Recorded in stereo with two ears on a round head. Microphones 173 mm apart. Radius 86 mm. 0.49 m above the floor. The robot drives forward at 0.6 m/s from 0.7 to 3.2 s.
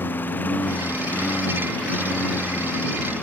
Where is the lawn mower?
10° left (ahead or behind); by 3.2 s 5° left (ahead or behind).